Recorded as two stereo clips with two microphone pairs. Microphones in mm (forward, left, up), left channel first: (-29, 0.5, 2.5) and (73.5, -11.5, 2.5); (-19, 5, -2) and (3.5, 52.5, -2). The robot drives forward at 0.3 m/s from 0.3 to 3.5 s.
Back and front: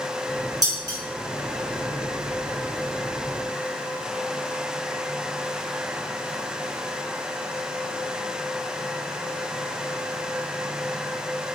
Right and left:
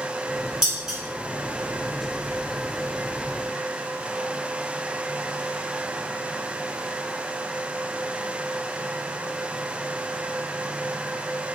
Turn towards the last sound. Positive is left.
turn(degrees=-155)